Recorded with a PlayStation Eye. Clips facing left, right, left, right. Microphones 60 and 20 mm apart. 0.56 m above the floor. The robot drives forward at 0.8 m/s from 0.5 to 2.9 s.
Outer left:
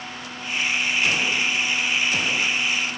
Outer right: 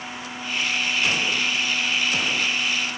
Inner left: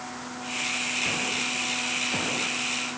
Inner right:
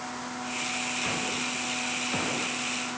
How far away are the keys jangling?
No keys jangling in this recording.